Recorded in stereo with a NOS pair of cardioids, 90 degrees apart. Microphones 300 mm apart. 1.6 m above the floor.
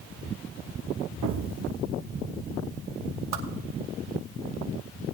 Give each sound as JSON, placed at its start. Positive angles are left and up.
{"t": 1.2, "sound": "an explosion", "azimuth_deg": -65, "distance_m": 0.9}
{"t": 3.3, "sound": "a whoosh", "azimuth_deg": -60, "distance_m": 1.6}